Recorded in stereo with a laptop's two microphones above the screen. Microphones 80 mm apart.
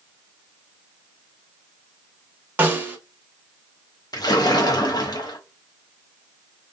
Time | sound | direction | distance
2.6 | a snare drum | 20° right (ahead or behind) | 0.6 m
4.1 | a splash | 55° left (ahead or behind) | 0.6 m